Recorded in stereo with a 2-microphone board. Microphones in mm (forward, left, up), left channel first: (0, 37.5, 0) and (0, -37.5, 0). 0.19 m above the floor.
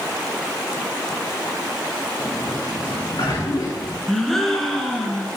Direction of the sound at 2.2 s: 55° left (ahead or behind).